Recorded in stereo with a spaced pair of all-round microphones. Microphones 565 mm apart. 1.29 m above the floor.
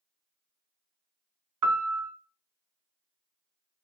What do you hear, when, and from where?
1.6 s a piano: 35° right (ahead or behind), 0.6 m